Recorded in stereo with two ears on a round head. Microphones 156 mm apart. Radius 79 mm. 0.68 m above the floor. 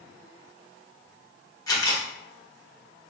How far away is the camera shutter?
About 1.5 m.